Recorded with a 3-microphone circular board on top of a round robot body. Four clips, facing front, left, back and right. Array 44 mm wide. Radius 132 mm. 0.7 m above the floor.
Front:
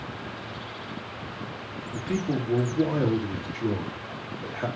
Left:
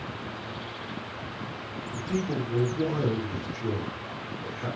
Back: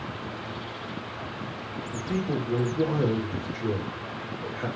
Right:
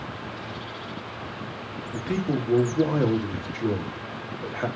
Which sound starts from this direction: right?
A man speaking, at 1.9 s.